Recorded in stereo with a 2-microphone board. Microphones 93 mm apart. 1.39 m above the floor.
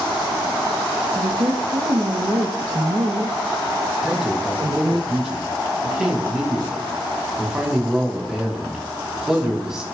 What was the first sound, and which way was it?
A woman speaking, 50° right (ahead or behind).